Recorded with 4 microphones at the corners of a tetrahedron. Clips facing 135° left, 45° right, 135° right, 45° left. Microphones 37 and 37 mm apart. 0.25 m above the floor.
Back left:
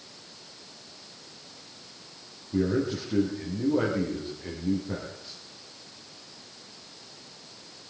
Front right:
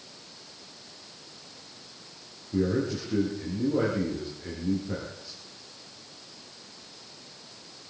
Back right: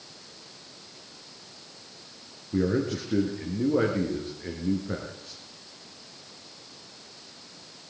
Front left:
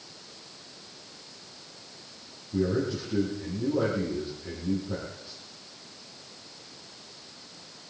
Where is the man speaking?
145° right, 4 m.